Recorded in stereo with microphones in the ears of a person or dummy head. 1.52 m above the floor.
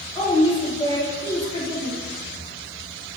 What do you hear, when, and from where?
0.1 s a woman speaking: 20° left (ahead or behind), 1.4 m